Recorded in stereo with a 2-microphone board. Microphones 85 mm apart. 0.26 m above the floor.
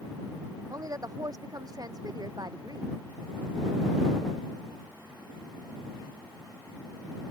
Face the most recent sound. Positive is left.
turn(degrees=-50)  # may be behind; listen again after turning